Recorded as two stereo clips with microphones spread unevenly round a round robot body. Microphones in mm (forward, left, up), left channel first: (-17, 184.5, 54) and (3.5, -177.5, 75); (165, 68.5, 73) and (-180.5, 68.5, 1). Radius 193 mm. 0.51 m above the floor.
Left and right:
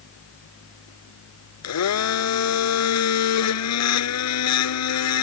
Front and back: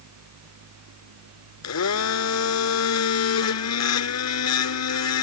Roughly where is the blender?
Ahead left.